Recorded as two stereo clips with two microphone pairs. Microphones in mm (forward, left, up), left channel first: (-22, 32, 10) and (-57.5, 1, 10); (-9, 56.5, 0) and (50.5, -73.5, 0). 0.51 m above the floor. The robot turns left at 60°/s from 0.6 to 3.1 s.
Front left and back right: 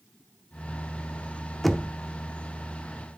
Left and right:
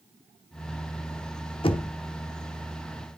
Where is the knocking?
135° left, 0.7 m; by 1.9 s 115° left, 0.7 m.